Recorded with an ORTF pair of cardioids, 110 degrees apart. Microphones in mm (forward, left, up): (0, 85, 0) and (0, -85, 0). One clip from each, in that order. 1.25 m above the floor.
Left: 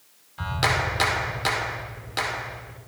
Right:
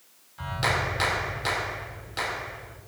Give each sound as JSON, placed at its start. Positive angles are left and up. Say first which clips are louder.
{"t": 0.4, "sound": "a clap", "louder": "left 3 dB", "azimuth_deg": 35, "distance_m": 3.0}